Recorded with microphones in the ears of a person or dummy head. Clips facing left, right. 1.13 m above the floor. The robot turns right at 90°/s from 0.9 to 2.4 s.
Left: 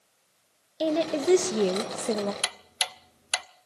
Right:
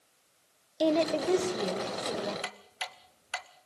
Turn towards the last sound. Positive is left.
turn(degrees=50)  # may be behind; listen again after turning